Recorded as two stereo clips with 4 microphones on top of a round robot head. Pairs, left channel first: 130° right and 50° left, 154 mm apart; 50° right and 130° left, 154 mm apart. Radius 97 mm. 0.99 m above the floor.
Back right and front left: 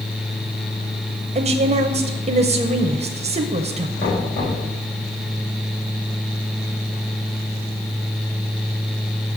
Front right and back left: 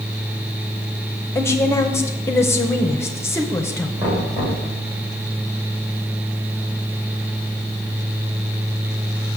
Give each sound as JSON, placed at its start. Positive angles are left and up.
{"t": 1.4, "sound": "a woman speaking", "azimuth_deg": 20, "distance_m": 0.7}
{"t": 4.0, "sound": "knocking", "azimuth_deg": -160, "distance_m": 4.0}